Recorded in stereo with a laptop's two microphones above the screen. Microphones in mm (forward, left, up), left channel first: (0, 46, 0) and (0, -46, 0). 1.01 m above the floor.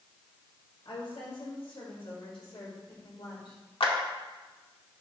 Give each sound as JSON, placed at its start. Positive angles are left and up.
{"t": 0.8, "sound": "a woman speaking", "side_deg": 85, "distance_m": 5.0}
{"t": 3.8, "sound": "a clap", "side_deg": 75, "distance_m": 1.6}